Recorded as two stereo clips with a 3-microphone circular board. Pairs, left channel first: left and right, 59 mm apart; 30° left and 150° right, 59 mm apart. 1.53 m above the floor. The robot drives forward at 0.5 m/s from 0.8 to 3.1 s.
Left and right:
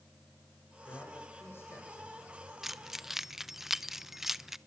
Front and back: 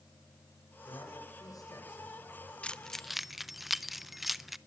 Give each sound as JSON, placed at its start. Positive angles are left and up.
{"t": 0.9, "sound": "a man speaking", "azimuth_deg": 40, "distance_m": 6.0}
{"t": 2.6, "sound": "keys jangling", "azimuth_deg": -15, "distance_m": 0.6}